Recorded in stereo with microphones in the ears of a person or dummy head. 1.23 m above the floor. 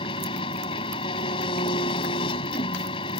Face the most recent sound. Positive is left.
turn(degrees=25)  # may be behind; listen again after turning